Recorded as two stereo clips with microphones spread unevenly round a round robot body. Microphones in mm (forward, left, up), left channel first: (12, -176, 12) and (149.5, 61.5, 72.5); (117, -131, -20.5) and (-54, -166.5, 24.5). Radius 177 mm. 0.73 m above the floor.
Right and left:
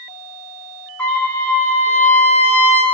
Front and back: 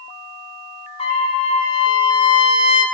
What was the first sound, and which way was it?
A trumpet, 40° right.